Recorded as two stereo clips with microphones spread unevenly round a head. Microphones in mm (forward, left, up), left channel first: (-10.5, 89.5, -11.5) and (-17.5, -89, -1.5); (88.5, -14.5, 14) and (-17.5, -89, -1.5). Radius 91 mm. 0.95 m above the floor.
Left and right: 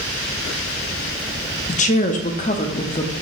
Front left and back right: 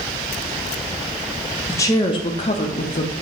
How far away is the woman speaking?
About 0.8 m.